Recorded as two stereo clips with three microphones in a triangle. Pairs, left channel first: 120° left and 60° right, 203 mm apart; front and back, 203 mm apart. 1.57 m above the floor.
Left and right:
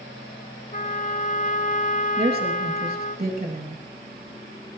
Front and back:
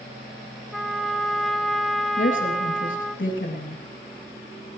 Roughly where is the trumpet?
Left.